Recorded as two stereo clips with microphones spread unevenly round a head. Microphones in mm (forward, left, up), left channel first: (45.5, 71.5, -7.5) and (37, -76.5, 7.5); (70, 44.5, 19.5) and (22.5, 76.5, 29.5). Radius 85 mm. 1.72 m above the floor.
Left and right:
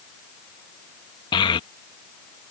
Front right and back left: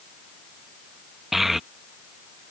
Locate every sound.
1.3 s a child speaking: 90° left